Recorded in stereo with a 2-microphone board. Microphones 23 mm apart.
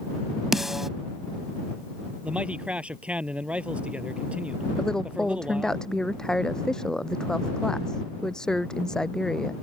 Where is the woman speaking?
25° left (ahead or behind).